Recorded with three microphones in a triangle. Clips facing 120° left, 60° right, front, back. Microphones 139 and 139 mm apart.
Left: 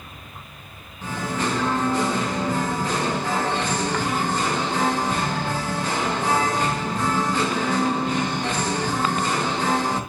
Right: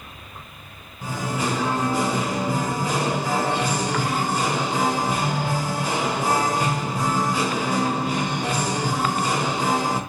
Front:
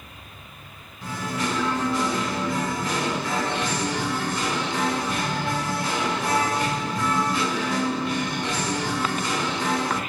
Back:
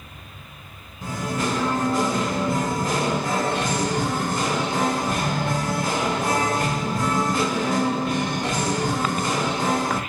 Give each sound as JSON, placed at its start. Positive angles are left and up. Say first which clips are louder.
{"t": 1.0, "sound": "singing", "louder": "even, back 2 dB", "azimuth_deg": -140, "distance_m": 1.1}